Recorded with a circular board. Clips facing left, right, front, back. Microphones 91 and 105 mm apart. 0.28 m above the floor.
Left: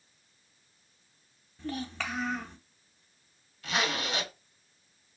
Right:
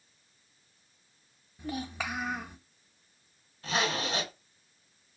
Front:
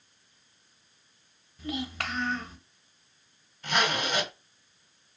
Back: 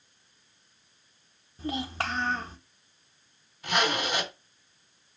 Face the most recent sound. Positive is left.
turn(degrees=-100)